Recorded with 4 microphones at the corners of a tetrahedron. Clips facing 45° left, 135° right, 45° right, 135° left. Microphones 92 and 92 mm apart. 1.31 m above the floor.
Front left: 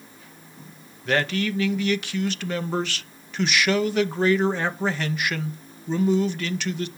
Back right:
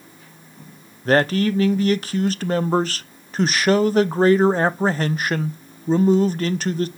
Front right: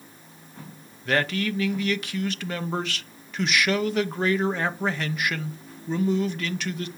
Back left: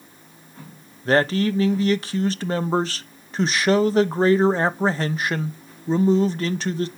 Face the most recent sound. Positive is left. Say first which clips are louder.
# back right 6 dB, back left 6 dB
turn(degrees=-175)